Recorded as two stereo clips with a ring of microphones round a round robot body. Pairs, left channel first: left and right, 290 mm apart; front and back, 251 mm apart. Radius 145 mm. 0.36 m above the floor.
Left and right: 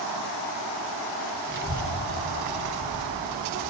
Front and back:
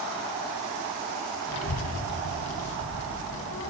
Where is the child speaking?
35° right, 2.5 m.